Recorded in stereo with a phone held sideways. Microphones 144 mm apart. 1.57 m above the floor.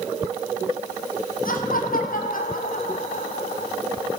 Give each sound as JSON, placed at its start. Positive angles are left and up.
{"t": 1.4, "sound": "laughter", "side_deg": 75, "distance_m": 6.0}